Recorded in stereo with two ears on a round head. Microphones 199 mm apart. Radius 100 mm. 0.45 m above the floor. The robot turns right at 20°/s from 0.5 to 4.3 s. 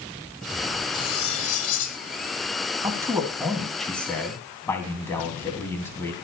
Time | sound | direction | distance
0.9 | cutlery clinking | 20° left (ahead or behind) | 1.5 m
2.8 | a man speaking | 15° right (ahead or behind) | 3 m